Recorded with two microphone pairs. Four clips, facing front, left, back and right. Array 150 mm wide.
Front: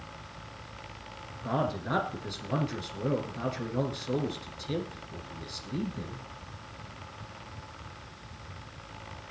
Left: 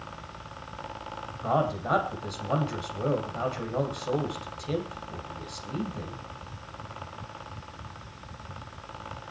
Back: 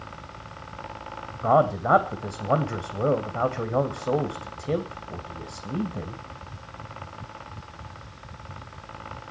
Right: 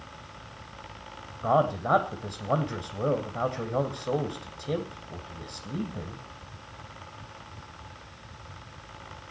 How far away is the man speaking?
About 2 m.